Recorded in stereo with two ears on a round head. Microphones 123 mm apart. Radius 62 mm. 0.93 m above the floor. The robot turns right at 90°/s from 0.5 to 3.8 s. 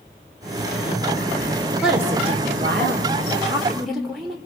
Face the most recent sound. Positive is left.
turn(degrees=0)